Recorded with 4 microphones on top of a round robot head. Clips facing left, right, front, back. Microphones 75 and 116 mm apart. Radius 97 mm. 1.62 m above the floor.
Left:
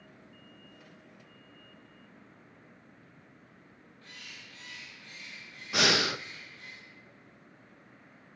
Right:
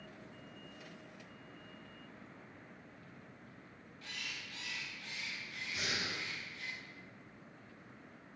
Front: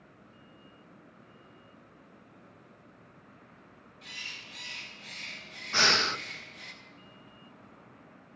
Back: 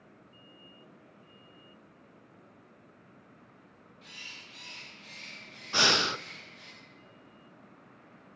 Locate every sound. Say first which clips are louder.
4.0 s a bird: right 4 dB, front 4 dB; 55° right, 1.7 m
5.7 s breathing: left 13 dB, even; 105° left, 0.5 m